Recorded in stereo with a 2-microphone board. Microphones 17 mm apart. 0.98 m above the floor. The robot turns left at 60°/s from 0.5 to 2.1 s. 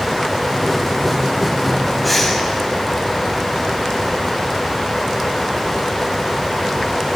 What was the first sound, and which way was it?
Breathing, 5° right (ahead or behind).